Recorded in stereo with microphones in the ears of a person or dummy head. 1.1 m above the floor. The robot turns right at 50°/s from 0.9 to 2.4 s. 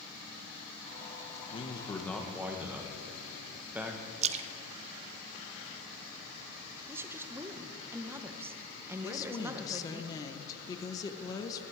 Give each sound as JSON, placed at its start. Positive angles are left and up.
{"t": 1.5, "sound": "a man speaking", "azimuth_deg": 145, "distance_m": 1.1}
{"t": 4.2, "sound": "a splash", "side_deg": -35, "distance_m": 0.5}
{"t": 6.9, "sound": "a woman speaking", "side_deg": -15, "distance_m": 0.8}
{"t": 9.0, "sound": "a woman speaking", "side_deg": 20, "distance_m": 0.8}